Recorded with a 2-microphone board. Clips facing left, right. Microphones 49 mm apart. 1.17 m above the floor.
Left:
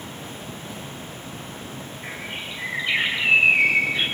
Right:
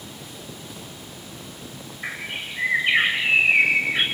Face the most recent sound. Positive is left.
turn(degrees=-50)  # may be behind; listen again after turning